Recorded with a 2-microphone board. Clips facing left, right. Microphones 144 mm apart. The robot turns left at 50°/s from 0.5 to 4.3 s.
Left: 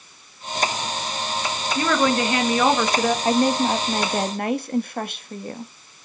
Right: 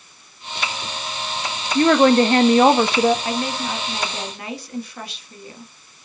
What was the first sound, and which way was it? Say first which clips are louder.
A woman speaking: right 8 dB; 80° right.